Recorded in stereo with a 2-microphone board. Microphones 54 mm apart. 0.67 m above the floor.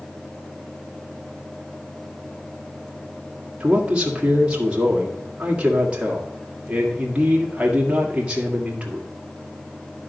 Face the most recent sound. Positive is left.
turn(degrees=-20)  # may be behind; listen again after turning